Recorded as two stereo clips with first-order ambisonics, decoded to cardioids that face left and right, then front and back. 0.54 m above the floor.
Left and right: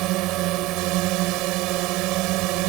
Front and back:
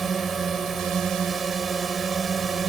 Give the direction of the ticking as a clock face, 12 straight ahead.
No ticking in this recording.